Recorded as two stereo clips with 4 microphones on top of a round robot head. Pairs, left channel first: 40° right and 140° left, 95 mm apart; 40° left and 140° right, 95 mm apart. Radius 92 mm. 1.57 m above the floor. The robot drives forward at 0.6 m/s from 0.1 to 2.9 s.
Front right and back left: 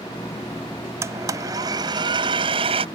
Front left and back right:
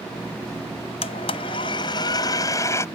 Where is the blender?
75° left; by 2.9 s 105° left.